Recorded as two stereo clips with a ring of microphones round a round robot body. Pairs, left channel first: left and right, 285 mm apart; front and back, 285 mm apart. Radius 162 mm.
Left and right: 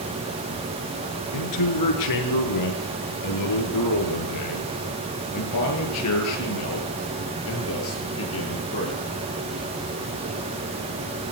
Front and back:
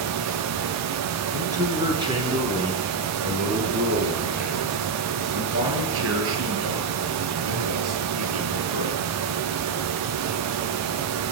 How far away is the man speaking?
About 7 m.